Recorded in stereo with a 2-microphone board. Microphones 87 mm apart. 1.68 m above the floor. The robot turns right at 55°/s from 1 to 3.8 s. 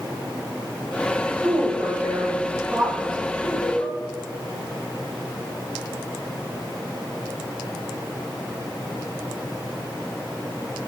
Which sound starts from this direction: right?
A woman speaking, at 1.4 s.